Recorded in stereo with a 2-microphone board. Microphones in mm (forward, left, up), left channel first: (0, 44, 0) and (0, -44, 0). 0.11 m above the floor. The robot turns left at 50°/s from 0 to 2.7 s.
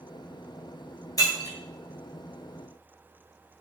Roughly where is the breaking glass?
Left.